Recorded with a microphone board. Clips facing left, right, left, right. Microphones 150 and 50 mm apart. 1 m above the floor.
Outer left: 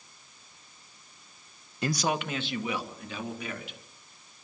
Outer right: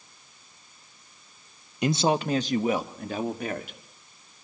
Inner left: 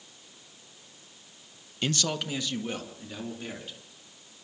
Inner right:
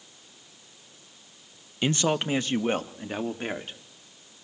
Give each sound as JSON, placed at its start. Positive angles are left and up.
{"t": 1.8, "sound": "a man speaking", "side_deg": -15, "distance_m": 0.9}